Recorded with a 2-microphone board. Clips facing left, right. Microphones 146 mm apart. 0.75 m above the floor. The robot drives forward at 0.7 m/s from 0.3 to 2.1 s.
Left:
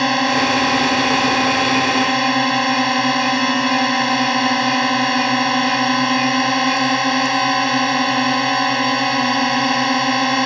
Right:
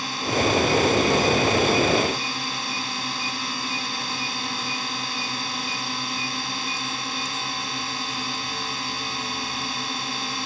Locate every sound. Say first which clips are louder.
0.0 s a drone: left 7 dB; 80° left; by 10.5 s 75° left (ahead or behind)